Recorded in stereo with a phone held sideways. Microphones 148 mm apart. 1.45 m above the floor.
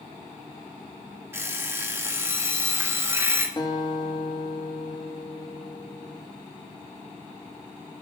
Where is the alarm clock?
20° right (ahead or behind), 1.4 m.